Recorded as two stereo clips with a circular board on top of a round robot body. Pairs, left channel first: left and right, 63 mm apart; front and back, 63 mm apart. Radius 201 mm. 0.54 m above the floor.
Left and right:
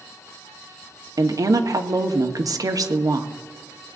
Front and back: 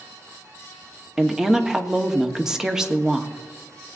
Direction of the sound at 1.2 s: 100° right.